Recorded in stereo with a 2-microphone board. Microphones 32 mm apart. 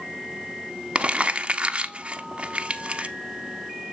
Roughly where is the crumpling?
Right.